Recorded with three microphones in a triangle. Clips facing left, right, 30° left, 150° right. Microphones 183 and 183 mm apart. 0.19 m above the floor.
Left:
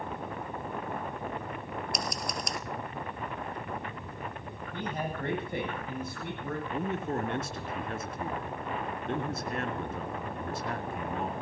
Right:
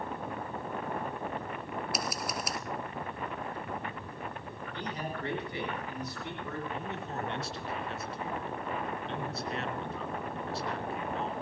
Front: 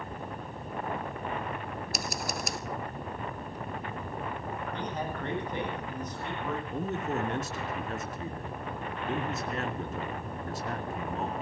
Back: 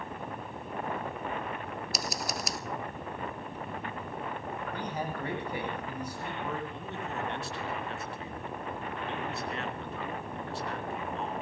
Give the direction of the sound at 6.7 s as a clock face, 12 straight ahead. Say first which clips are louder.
Left 6 dB, front 6 dB; 10 o'clock.